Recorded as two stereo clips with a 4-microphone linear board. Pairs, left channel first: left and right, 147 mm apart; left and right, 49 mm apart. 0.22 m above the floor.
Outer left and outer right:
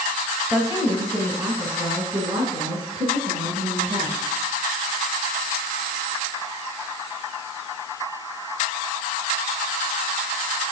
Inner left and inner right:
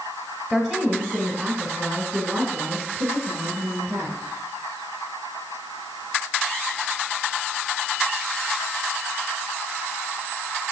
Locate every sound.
0.5 s a woman speaking: 15° right (ahead or behind), 1.3 m; by 4.3 s 50° right (ahead or behind), 3 m